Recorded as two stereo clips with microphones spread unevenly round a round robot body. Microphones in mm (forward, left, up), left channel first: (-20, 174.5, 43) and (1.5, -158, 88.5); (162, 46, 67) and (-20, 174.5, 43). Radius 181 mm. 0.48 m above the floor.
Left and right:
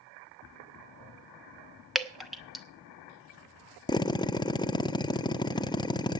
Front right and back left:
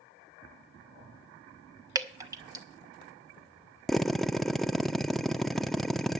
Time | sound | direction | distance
1.9 | dripping | 160° left | 1.2 m
3.9 | a drill | 65° left | 0.6 m